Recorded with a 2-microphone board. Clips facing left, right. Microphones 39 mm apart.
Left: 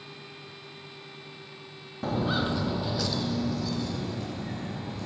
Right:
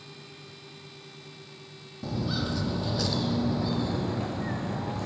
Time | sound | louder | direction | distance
2.0 | footsteps | left 4 dB | 50° left (ahead or behind) | 0.6 m